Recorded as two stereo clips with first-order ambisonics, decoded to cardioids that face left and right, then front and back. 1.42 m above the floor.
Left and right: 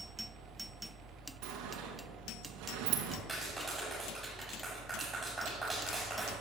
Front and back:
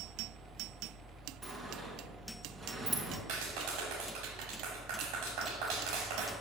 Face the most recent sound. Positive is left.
turn(degrees=-175)